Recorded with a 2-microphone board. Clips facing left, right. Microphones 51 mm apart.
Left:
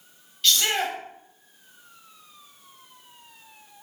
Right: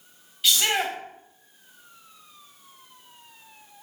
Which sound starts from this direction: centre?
A shout, at 0.4 s.